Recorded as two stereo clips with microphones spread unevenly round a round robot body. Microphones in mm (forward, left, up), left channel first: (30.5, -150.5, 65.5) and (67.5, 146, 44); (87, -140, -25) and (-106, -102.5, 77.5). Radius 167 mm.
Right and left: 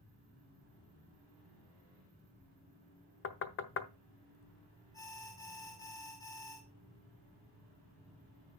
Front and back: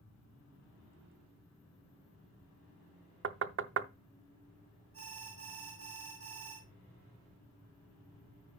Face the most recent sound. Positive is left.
turn(degrees=-175)